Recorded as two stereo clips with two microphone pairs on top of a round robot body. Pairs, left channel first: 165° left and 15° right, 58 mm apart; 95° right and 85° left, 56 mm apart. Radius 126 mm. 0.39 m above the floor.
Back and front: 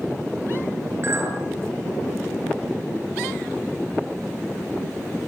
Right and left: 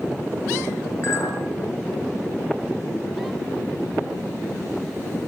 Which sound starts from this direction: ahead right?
A clink, at 1.0 s.